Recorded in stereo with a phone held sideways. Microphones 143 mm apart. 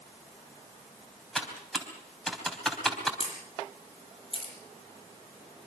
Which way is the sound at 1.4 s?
Centre (ahead or behind).